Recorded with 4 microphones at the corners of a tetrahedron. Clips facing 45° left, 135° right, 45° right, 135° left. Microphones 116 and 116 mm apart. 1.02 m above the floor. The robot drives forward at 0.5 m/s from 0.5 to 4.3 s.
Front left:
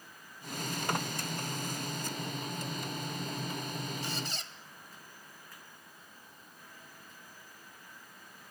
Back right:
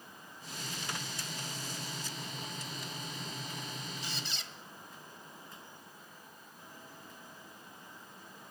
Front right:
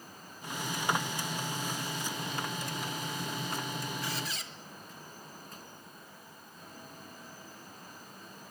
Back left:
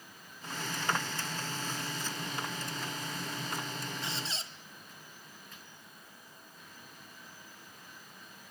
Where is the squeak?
75° left, 1.4 m; by 4.5 s 80° left, 1.4 m.